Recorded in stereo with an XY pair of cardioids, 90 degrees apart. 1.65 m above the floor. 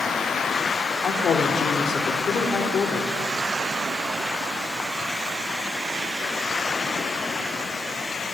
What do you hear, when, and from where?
1.0 s a woman speaking: 60° left, 4 m